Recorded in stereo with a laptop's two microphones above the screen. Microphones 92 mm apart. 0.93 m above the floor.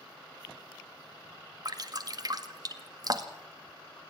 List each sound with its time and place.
1.6 s dripping: 45° right (ahead or behind), 1.9 m